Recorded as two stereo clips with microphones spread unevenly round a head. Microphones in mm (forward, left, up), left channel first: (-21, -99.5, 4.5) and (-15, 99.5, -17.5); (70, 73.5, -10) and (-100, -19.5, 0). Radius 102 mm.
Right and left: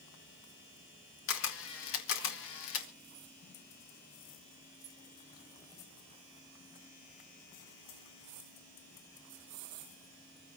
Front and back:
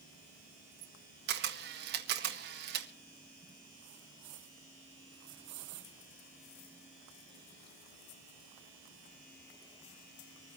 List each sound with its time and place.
1.3 s a camera shutter: 110° right, 1.8 m